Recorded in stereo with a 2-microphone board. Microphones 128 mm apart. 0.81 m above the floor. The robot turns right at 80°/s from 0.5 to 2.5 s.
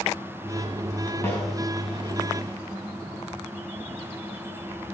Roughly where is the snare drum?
Centre.